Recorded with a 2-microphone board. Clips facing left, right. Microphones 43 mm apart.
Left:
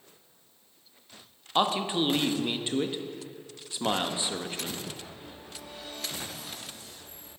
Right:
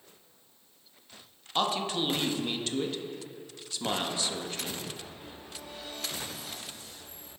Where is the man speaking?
20° left (ahead or behind), 0.6 m.